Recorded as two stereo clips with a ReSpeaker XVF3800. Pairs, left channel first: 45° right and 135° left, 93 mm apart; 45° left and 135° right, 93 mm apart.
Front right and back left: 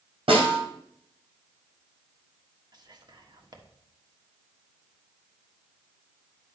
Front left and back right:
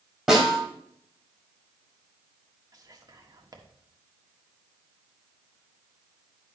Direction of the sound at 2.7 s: 175° left.